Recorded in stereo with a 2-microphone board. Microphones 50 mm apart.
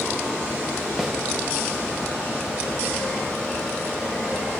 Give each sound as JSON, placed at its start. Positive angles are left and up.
{"t": 1.0, "sound": "a snare drum", "side_deg": 0, "distance_m": 4.0}